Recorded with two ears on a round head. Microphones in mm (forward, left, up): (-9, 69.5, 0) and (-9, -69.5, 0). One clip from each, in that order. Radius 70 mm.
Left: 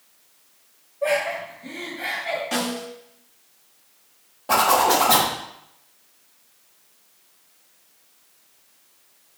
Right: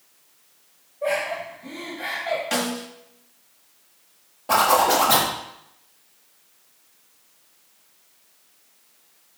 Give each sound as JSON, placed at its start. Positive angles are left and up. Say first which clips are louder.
{"t": 1.0, "sound": "laughter", "louder": "left 2 dB", "side_deg": 20, "distance_m": 1.5}
{"t": 2.5, "sound": "a snare drum", "louder": "right 1 dB", "side_deg": -35, "distance_m": 1.5}
{"t": 4.5, "sound": "a zipper", "louder": "even", "side_deg": 0, "distance_m": 1.4}